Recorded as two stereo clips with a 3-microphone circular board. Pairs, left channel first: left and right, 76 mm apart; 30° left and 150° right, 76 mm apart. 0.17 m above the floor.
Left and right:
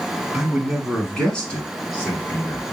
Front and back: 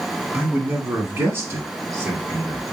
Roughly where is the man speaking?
Behind right.